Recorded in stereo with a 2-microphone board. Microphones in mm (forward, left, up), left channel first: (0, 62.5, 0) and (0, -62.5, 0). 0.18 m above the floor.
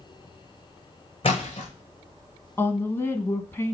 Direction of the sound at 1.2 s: 45° left (ahead or behind).